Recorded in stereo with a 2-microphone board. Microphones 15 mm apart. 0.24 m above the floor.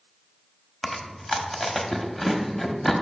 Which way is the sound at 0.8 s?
20° left (ahead or behind).